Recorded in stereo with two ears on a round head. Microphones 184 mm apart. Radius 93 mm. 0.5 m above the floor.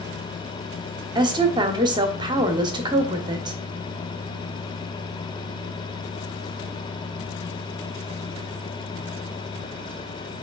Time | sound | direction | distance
1.1 | a woman speaking | 20° right (ahead or behind) | 1.0 m